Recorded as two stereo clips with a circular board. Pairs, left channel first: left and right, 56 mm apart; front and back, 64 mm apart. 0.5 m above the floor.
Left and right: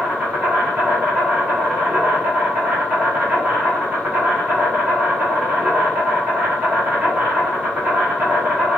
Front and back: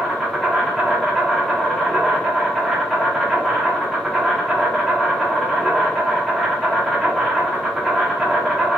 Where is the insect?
90° right, 1.1 m.